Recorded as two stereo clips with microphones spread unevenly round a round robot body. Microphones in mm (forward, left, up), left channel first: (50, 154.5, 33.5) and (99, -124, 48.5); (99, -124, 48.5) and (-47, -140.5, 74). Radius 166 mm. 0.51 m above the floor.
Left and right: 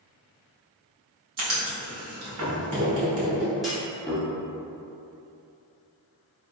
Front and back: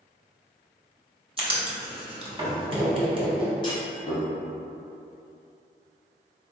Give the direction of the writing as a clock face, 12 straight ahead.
4 o'clock.